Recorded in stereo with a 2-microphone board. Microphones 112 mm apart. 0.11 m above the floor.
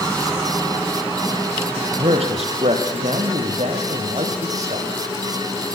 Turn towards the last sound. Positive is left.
turn(degrees=-75)  # may be behind; listen again after turning